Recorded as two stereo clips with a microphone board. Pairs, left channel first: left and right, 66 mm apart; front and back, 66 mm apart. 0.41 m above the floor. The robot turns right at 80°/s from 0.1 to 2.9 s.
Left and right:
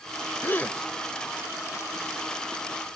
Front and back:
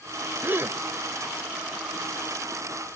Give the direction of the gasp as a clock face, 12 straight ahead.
8 o'clock.